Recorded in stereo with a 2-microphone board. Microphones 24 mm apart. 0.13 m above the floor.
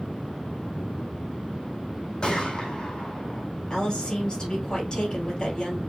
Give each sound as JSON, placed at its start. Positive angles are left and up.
{"t": 2.2, "sound": "a gunshot", "side_deg": 30, "distance_m": 1.8}
{"t": 3.7, "sound": "a woman speaking", "side_deg": 25, "distance_m": 3.0}